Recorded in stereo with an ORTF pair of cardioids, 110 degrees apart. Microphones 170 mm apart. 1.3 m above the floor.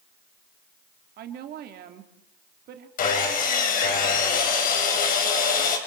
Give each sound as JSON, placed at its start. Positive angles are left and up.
{"t": 1.2, "sound": "a woman speaking", "azimuth_deg": -65, "distance_m": 2.5}
{"t": 3.0, "sound": "sawing", "azimuth_deg": 55, "distance_m": 4.0}